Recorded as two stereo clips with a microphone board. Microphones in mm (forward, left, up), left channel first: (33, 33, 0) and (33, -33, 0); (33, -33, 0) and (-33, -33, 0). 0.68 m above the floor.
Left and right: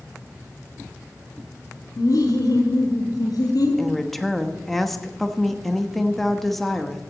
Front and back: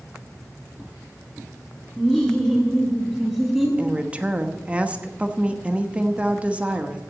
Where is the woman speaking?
170° left, 1.0 m.